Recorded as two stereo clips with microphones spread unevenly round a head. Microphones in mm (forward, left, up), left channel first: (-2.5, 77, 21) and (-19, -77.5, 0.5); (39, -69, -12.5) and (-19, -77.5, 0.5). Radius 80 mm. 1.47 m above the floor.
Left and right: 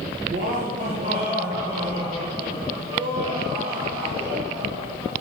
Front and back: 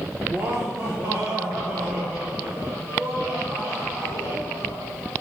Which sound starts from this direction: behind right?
Laughter, at 0.2 s.